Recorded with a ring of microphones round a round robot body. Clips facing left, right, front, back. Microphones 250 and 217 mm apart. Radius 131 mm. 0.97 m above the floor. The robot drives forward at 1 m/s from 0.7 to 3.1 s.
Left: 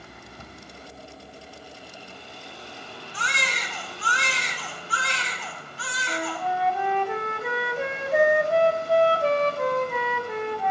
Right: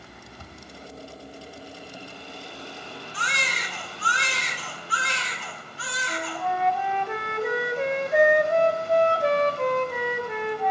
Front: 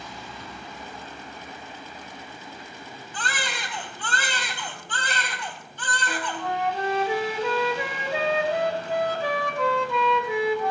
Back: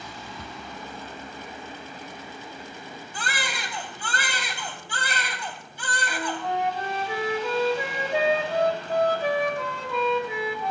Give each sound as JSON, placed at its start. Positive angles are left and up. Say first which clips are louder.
{"t": 0.4, "sound": "a cupboard door", "louder": "left 1 dB, back 1 dB", "azimuth_deg": 165, "distance_m": 1.8}
{"t": 3.1, "sound": "a baby crying", "louder": "left 3 dB, front 1 dB", "azimuth_deg": 100, "distance_m": 3.5}
{"t": 6.1, "sound": "a flute", "louder": "left 1 dB, back 1 dB", "azimuth_deg": 5, "distance_m": 1.9}